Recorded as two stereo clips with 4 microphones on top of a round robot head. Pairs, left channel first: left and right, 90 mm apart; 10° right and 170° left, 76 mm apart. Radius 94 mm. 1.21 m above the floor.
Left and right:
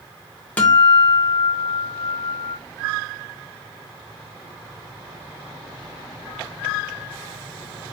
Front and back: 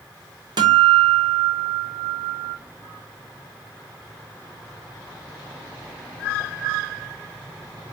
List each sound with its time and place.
0.6 s a guitar: 165° left, 0.7 m